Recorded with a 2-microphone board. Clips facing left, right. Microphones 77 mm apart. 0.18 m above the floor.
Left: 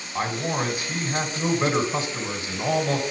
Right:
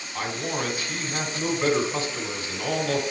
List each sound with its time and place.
0.1 s a man speaking: 15° left (ahead or behind), 1.7 m